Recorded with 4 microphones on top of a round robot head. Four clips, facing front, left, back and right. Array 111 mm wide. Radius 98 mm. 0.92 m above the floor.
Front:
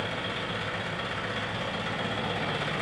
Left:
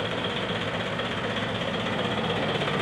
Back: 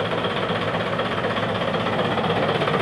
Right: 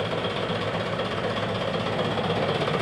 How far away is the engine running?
About 1.1 m.